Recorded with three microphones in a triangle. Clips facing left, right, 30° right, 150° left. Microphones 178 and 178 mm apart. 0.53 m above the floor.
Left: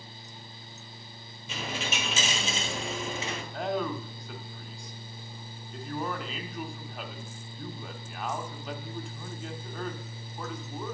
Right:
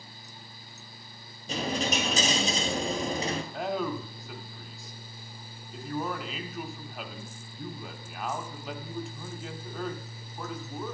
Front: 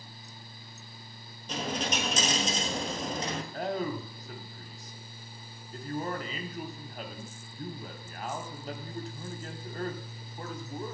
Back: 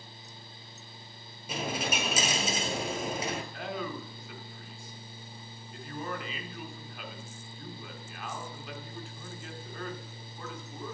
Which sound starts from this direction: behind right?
A dropped coin, at 1.5 s.